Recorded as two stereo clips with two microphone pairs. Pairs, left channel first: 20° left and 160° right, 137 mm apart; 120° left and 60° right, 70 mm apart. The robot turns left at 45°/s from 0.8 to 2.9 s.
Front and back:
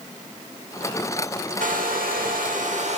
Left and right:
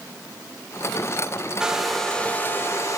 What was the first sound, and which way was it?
A hair dryer, 135° right.